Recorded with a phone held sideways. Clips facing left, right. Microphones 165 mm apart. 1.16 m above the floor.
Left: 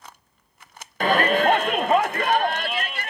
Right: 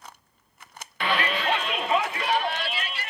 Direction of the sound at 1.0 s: 45° left (ahead or behind).